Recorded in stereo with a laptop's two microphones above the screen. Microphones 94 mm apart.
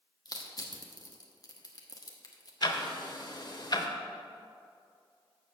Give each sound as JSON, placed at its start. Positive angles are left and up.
{"t": 0.2, "sound": "crushing", "side_deg": 45, "distance_m": 0.9}
{"t": 2.6, "sound": "ticking", "side_deg": 50, "distance_m": 0.8}